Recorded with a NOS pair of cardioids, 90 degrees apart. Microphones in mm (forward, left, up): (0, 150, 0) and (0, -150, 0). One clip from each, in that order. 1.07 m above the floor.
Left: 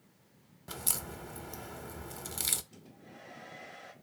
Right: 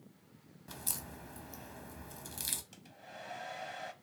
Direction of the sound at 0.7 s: 25° left.